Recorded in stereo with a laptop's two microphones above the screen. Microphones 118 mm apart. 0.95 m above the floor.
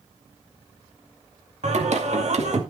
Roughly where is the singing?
Right.